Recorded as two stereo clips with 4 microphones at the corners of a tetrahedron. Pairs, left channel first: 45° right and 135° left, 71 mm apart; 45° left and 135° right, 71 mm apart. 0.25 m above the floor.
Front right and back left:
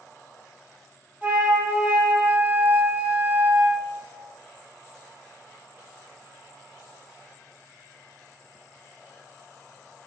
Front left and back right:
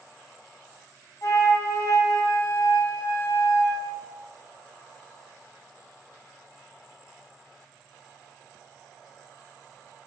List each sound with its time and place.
1.2 s a flute: 70° left, 1.6 m